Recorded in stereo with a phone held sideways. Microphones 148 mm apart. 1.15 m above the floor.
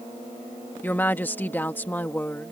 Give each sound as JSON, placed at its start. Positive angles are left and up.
{"t": 0.8, "sound": "a woman speaking", "side_deg": 15}